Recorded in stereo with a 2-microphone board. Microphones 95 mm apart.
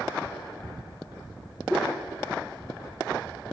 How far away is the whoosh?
About 1.4 m.